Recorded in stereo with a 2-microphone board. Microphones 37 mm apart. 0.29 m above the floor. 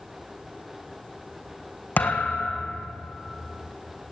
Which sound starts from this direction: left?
A thud, at 2.0 s.